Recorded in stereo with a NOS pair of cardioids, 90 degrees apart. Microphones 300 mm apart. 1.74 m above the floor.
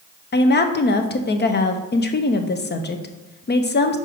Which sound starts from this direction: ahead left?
A woman speaking, at 0.3 s.